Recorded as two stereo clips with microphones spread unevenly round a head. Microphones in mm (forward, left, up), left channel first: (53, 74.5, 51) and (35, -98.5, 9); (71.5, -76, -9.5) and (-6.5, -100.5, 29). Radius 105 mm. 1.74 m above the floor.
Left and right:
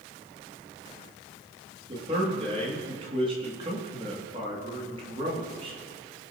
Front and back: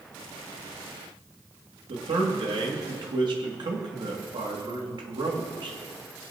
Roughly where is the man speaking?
Behind.